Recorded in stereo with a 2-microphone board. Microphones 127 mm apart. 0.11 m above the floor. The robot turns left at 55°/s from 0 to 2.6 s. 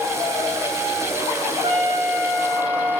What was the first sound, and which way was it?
A trumpet, 45° right.